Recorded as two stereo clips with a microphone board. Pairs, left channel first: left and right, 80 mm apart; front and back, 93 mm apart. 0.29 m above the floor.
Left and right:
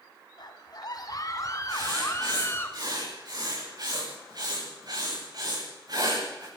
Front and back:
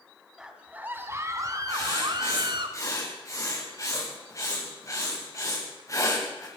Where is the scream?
95° left, 2.5 m; by 2.7 s 150° left, 3.5 m.